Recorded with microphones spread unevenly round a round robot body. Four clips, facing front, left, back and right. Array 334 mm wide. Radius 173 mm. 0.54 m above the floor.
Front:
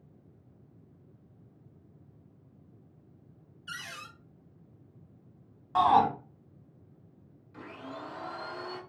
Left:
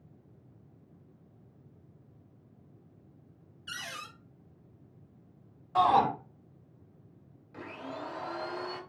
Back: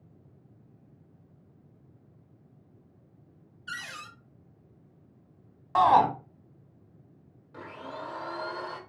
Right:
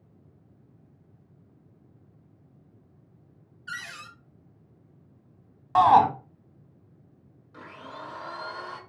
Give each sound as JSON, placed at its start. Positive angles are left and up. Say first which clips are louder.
{"t": 3.7, "sound": "a cupboard door", "louder": "right 3 dB, back 3 dB", "azimuth_deg": 130, "distance_m": 0.7}
{"t": 5.8, "sound": "a shout", "louder": "right 7 dB, back 2 dB", "azimuth_deg": -105, "distance_m": 1.2}
{"t": 7.5, "sound": "a blender", "louder": "left 1 dB, back 3 dB", "azimuth_deg": 150, "distance_m": 1.2}